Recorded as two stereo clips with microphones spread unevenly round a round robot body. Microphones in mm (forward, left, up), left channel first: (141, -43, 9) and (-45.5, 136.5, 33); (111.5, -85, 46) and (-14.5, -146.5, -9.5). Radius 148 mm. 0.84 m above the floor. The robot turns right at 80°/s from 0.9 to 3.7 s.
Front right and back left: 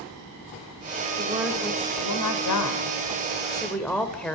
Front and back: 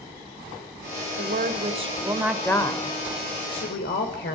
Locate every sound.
1.2 s a woman speaking: 160° right, 3.5 m; by 4.4 s 40° left, 3.5 m